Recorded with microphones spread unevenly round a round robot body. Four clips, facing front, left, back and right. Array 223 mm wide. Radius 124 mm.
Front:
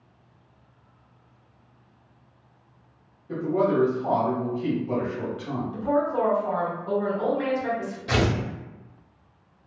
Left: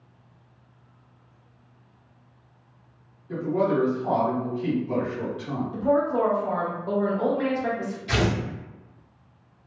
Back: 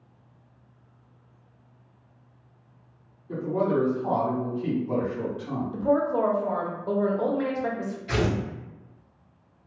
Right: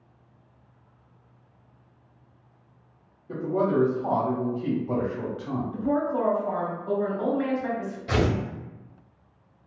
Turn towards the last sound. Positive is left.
turn(degrees=-20)